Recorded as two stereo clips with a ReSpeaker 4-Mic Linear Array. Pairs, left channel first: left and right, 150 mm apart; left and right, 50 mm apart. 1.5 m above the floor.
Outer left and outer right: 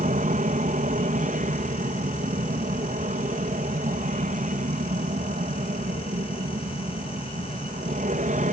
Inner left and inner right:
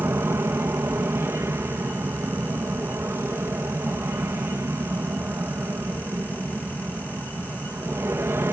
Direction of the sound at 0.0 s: 60° right (ahead or behind).